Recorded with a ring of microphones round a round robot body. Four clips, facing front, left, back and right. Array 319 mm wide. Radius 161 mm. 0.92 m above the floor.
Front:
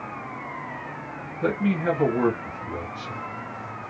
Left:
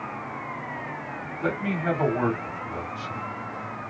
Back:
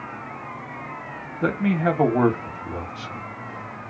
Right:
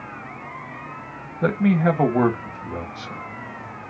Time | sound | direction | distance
1.4 | a man speaking | 125° right | 1.2 m